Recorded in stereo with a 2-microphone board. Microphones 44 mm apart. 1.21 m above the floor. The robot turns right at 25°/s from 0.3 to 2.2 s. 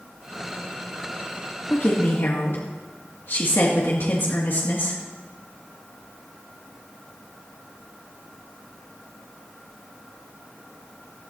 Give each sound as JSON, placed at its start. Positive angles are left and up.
{"t": 1.7, "sound": "a woman speaking", "side_deg": 45, "distance_m": 2.5}